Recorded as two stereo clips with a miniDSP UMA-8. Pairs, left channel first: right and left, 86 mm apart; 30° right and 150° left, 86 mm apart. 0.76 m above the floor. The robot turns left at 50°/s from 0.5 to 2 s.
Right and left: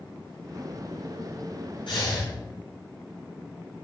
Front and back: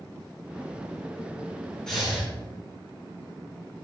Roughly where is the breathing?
Right.